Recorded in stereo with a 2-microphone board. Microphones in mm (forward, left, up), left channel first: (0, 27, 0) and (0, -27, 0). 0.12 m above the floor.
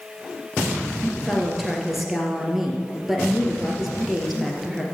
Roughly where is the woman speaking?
Centre.